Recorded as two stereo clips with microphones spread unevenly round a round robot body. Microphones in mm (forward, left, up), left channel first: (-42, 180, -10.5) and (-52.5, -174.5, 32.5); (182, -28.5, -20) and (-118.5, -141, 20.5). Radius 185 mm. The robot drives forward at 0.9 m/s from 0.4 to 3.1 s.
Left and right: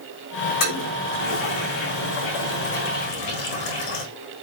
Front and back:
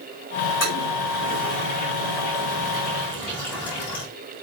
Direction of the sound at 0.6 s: 85° left.